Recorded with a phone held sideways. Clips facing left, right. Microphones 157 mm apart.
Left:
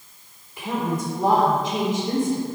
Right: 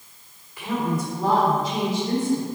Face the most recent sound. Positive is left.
turn(degrees=25)  # may be behind; listen again after turning